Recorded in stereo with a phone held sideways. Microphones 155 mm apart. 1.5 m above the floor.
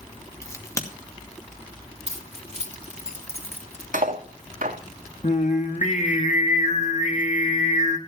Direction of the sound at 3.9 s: 65° right (ahead or behind).